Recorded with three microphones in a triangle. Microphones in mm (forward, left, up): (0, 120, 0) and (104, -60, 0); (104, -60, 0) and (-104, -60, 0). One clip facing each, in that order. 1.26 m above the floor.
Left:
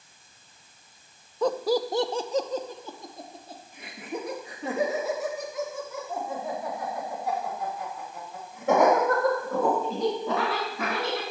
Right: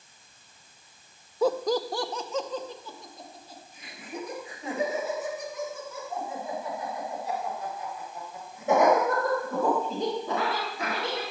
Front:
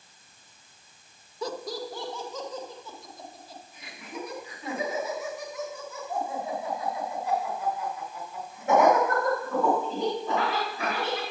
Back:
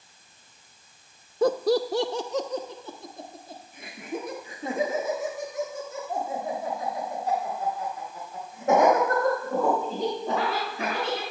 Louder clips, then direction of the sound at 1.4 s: Even, back 12 dB; 140° right.